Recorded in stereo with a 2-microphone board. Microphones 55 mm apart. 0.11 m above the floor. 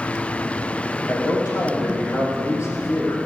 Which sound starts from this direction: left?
A man speaking, at 1.1 s.